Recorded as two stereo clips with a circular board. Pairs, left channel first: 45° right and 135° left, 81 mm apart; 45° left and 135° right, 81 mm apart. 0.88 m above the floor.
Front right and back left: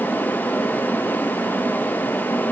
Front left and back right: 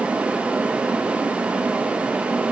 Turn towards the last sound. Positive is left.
No sound to turn to.